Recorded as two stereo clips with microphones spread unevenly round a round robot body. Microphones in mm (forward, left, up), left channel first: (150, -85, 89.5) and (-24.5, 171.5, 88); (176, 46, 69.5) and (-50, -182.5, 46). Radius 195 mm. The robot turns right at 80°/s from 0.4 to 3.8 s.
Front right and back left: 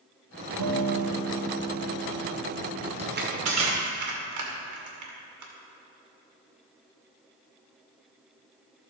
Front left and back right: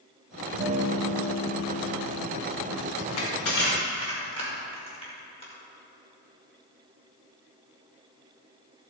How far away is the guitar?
About 1.1 m.